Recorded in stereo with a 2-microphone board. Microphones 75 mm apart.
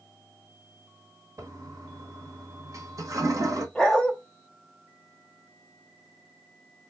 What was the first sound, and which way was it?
A toilet flushing, 45° right (ahead or behind).